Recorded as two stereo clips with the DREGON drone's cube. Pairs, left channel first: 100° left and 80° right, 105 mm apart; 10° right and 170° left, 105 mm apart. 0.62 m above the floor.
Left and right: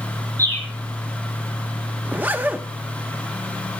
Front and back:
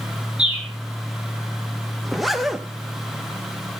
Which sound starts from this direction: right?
A zipper, at 2.0 s.